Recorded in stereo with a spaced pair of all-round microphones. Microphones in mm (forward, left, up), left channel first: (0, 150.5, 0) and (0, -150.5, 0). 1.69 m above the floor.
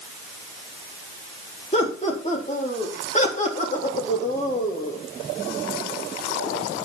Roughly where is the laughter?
Left.